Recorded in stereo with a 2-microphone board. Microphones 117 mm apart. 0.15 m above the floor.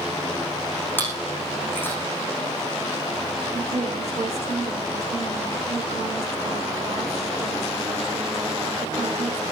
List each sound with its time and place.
1.0 s chewing: 15° left (ahead or behind), 8.5 m
3.5 s a woman speaking: 60° right (ahead or behind), 9.5 m